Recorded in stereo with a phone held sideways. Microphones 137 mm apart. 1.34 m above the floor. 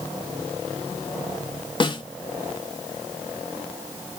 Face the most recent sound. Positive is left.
turn(degrees=35)  # may be behind; listen again after turning